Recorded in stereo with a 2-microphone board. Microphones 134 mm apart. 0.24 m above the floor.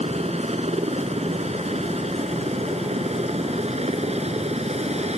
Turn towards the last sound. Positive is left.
turn(degrees=-50)  # may be behind; listen again after turning